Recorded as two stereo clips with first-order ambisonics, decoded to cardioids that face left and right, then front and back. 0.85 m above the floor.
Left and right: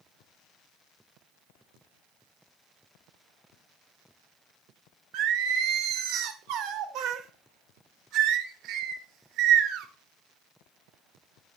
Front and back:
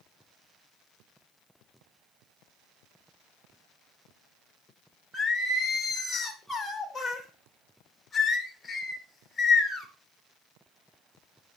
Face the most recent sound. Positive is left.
turn(degrees=-75)